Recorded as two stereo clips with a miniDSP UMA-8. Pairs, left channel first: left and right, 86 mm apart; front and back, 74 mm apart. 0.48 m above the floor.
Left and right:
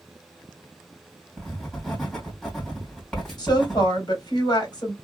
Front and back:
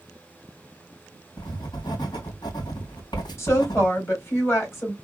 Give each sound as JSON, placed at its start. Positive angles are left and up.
{"t": 1.4, "sound": "writing", "azimuth_deg": 5, "distance_m": 2.5}
{"t": 3.4, "sound": "a woman speaking", "azimuth_deg": 55, "distance_m": 2.5}